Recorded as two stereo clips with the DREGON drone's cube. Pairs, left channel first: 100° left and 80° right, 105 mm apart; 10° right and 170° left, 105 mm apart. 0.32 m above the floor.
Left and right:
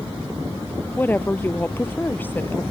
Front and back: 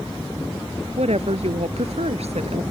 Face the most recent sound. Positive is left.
turn(degrees=170)